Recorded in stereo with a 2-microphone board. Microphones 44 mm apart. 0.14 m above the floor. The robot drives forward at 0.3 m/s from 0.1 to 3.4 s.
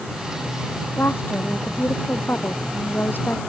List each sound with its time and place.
1.0 s a woman speaking: 55° left (ahead or behind); by 3.4 s 50° left (ahead or behind)